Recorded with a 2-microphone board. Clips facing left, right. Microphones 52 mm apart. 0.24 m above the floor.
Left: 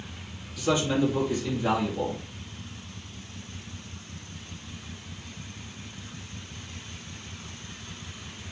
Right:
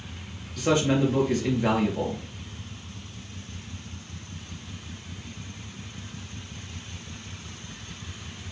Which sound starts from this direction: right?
A man speaking, at 0.6 s.